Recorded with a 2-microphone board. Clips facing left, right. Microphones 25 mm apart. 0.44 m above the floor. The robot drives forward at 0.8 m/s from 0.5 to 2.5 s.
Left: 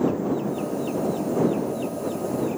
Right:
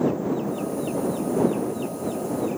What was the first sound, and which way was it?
Only background noise.